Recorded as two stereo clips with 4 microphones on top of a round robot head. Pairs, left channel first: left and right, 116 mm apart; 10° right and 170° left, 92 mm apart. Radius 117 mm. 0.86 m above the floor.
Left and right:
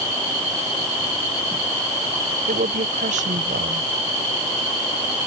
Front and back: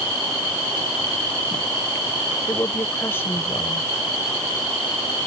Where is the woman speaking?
80° right.